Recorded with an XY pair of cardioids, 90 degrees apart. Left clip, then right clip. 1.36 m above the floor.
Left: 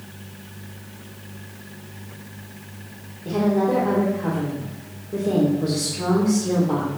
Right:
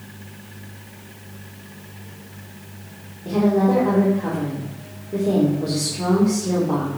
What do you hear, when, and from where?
3.2 s a woman speaking: 5° right, 4.5 m